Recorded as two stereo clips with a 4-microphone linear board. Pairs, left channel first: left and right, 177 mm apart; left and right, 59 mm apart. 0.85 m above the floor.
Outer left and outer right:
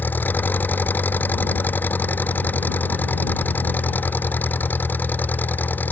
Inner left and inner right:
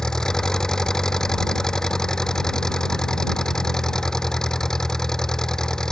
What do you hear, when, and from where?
0.0 s an engine running: 10° left (ahead or behind)